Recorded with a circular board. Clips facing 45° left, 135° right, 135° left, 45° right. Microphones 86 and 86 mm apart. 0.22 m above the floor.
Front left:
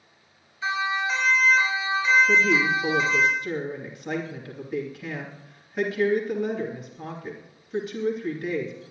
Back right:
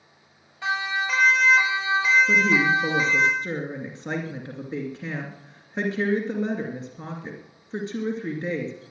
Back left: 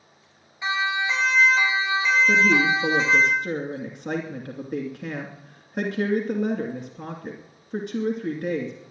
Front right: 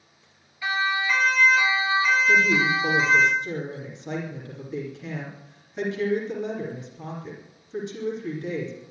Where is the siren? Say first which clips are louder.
Even, even; 160° right, 5 m; by 3.3 s 170° right, 7.5 m.